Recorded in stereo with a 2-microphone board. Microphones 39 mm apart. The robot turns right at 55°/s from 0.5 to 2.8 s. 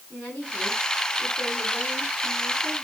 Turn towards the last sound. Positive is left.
turn(degrees=160)